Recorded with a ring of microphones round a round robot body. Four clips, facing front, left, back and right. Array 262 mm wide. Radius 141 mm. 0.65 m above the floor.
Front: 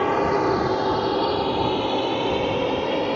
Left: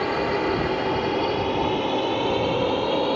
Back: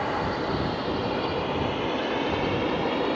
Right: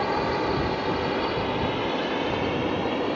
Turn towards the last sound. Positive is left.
turn(degrees=55)